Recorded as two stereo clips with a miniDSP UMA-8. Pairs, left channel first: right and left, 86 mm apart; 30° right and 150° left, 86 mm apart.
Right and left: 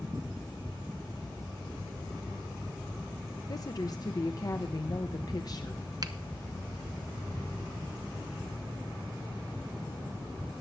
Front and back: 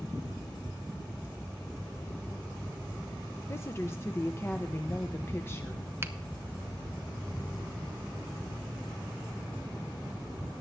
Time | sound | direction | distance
3.5 | a woman speaking | 80° right | 0.8 m
6.0 | a finger snap | 95° left | 0.8 m